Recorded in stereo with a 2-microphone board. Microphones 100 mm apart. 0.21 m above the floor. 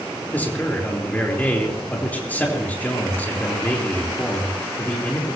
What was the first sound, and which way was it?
A man speaking, 15° left (ahead or behind).